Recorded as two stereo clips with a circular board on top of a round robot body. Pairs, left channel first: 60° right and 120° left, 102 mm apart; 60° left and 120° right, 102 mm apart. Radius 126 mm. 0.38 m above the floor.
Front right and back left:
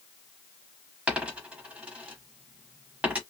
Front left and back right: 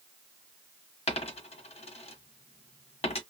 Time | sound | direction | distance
1.1 | a dropped coin | 40° left | 1.3 m